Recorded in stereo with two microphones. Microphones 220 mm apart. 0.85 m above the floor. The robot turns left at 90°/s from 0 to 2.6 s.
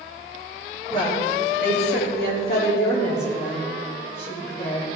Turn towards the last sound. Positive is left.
turn(degrees=45)